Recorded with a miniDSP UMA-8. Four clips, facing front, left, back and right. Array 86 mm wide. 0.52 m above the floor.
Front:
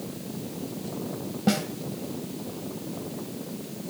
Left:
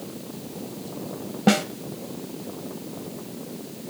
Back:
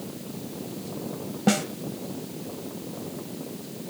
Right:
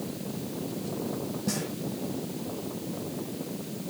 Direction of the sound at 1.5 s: 100° left.